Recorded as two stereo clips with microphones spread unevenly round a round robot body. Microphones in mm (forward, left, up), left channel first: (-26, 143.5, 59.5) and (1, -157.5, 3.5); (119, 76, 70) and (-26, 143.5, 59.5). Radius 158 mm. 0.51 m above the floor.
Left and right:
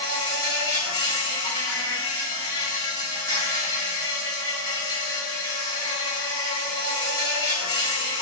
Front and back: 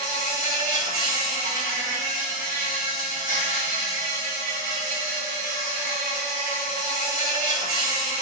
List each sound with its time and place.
0.0 s an insect: straight behind, 2 m